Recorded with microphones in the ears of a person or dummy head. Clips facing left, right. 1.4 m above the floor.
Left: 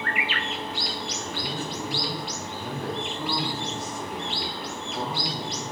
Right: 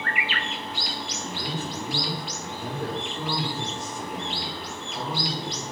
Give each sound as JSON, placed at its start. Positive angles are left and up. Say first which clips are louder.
{"t": 1.2, "sound": "a man speaking", "louder": "right 2 dB", "side_deg": -15, "distance_m": 1.9}